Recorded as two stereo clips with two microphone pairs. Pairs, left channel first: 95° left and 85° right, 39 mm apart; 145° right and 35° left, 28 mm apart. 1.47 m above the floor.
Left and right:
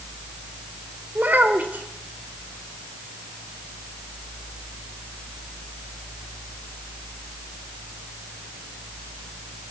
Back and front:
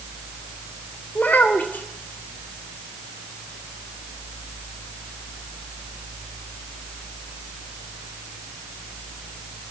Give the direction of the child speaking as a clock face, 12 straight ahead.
4 o'clock.